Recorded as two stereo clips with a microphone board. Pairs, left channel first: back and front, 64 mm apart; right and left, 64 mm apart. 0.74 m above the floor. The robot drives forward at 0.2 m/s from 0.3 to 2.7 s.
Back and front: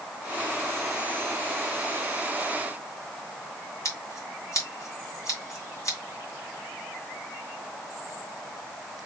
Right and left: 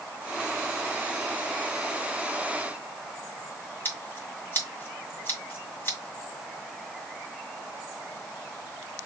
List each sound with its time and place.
3.9 s scissors: 150° right, 2 m